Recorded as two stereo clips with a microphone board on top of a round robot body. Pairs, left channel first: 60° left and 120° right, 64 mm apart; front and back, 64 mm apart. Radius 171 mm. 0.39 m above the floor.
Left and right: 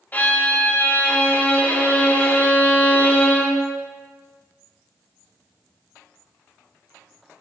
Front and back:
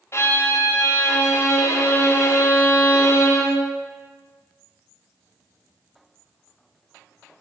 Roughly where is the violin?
Ahead.